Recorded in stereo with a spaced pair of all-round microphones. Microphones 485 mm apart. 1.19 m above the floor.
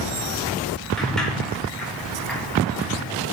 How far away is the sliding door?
About 3 m.